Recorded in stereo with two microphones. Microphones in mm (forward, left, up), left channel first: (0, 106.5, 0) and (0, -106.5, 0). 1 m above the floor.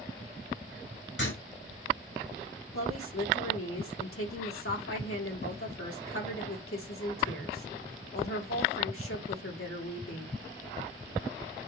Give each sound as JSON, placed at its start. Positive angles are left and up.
{"t": 1.2, "sound": "writing", "side_deg": 70, "distance_m": 3.5}
{"t": 2.7, "sound": "a woman speaking", "side_deg": 80, "distance_m": 2.5}